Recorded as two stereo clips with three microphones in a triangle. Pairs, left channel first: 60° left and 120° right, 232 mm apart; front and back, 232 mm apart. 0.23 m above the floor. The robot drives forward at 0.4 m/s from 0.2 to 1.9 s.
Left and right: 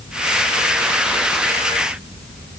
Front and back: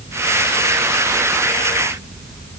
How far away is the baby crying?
I don't hear a baby crying.